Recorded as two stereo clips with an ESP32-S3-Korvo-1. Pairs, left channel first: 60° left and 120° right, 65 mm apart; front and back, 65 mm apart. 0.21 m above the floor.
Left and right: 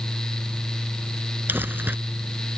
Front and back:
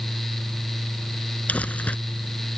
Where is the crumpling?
65° right.